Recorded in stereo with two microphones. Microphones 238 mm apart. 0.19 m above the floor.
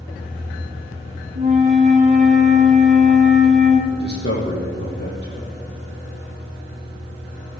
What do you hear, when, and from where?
1.4 s a flute: 30° right (ahead or behind), 2 m
3.9 s a man speaking: 50° left (ahead or behind), 5.5 m